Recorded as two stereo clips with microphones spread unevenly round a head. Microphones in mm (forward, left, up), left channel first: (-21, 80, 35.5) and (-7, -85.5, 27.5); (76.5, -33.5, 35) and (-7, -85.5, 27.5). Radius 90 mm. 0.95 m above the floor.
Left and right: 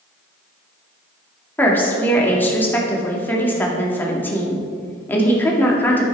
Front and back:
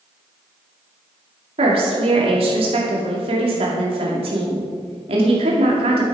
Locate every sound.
1.6 s a woman speaking: 175° left, 2.0 m